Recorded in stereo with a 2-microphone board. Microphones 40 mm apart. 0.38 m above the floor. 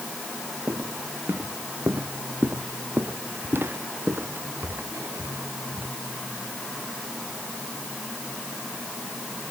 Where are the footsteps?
65° right (ahead or behind); by 5.9 s 75° right (ahead or behind).